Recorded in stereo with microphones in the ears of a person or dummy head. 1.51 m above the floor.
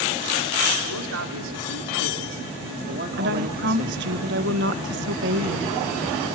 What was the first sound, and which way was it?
A man speaking, 80° right.